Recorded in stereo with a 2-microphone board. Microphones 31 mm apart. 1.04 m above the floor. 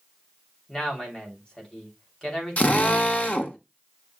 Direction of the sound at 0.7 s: 25° left (ahead or behind).